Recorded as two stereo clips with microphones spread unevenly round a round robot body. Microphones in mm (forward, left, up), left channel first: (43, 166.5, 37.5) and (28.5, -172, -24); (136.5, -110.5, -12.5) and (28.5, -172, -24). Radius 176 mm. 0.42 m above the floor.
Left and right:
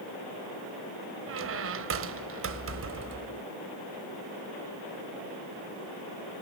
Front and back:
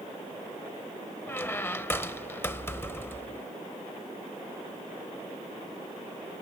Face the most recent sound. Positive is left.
turn(degrees=-45)